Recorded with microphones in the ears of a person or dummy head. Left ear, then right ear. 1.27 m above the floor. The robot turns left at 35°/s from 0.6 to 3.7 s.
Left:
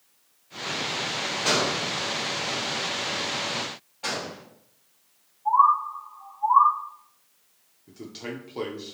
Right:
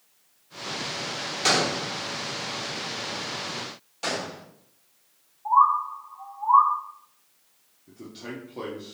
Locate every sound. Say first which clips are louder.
1.4 s a gunshot: right 2 dB; 50° right (ahead or behind), 1.5 m; by 1.9 s 65° right (ahead or behind), 1.5 m
4.0 s a gunshot: right 1 dB; 85° right, 2.5 m
5.5 s a bird: even; 60° right (ahead or behind), 1.4 m
7.9 s a man speaking: left 2 dB; 30° left (ahead or behind), 0.7 m